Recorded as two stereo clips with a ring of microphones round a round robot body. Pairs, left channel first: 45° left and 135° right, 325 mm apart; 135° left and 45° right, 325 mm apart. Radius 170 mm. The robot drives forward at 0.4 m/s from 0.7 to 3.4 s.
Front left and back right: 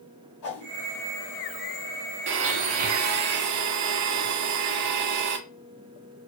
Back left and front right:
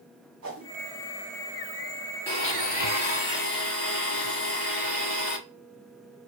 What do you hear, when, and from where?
0.4 s a whoosh: 10° left, 1.9 m
2.3 s a blender: 160° right, 0.5 m; by 5.4 s 170° right, 0.8 m